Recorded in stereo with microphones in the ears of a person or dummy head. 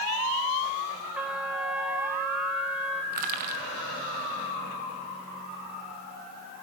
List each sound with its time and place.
1.1 s a trumpet: 5° right (ahead or behind), 0.9 m
3.1 s crushing: 50° right (ahead or behind), 1.2 m